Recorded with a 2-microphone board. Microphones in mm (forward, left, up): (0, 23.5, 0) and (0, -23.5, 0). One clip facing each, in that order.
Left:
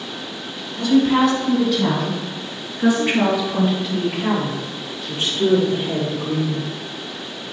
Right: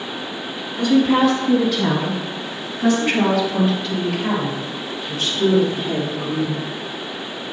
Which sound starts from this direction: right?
A woman speaking, at 0.8 s.